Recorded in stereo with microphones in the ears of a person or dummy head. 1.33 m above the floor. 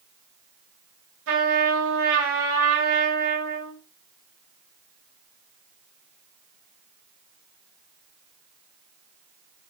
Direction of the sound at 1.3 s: 60° right (ahead or behind).